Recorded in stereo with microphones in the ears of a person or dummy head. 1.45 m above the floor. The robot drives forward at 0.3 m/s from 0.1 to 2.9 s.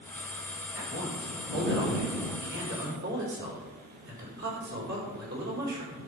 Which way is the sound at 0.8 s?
70° right (ahead or behind).